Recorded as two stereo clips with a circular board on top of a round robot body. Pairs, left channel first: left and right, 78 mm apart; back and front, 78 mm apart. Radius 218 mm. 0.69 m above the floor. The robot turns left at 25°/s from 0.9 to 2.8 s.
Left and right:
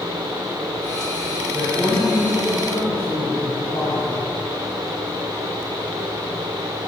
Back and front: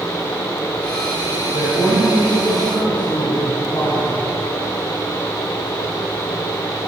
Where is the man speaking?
175° right, 4 m; by 4.2 s 150° left, 4 m.